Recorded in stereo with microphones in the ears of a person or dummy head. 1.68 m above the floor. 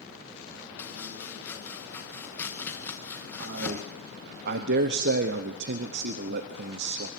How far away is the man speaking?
About 0.9 m.